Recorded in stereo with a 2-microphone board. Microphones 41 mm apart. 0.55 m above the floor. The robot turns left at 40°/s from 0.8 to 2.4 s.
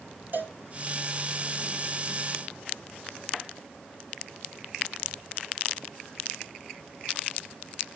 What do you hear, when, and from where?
0.3 s a cowbell: 50° right (ahead or behind), 1.7 m